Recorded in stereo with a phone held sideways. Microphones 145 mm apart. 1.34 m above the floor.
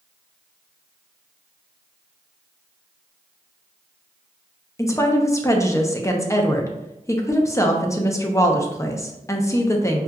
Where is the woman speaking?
20° left (ahead or behind), 0.6 m.